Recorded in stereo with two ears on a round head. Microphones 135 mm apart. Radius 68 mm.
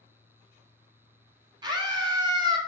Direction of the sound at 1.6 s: 30° right (ahead or behind).